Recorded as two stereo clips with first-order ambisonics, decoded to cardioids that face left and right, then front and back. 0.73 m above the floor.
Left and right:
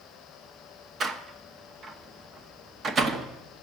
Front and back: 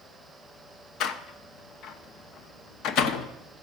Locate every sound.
1.0 s a door slam: 30° right, 0.8 m